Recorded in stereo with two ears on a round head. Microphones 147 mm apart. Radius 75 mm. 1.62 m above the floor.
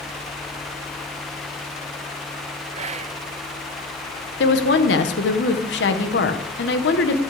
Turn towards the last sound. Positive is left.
turn(degrees=80)